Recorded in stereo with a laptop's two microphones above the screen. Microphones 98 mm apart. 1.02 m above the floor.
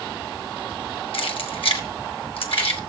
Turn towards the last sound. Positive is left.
turn(degrees=65)  # may be behind; listen again after turning